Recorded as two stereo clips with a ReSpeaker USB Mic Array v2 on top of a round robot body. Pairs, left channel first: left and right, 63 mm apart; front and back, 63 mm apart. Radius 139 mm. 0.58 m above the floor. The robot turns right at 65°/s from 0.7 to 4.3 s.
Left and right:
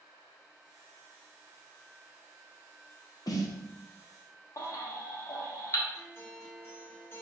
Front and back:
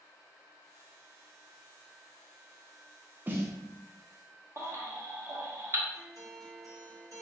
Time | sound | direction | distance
3.3 | a snare drum | 115° left | 0.6 m
4.6 | a baby crying | 130° left | 1.0 m
5.9 | a guitar | 145° left | 1.2 m